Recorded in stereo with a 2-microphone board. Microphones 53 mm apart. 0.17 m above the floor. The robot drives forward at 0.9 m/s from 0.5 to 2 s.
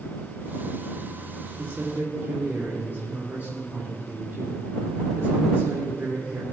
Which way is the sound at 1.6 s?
50° right (ahead or behind).